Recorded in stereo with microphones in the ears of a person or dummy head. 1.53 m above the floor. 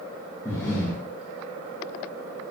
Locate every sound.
0.5 s breathing: 10° left (ahead or behind), 1.1 m